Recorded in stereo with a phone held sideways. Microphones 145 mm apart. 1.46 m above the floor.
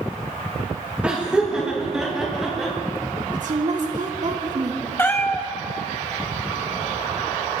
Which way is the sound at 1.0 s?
10° right (ahead or behind).